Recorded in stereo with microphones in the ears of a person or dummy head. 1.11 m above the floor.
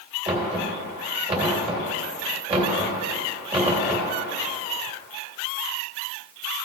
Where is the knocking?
30° right (ahead or behind), 2.5 m.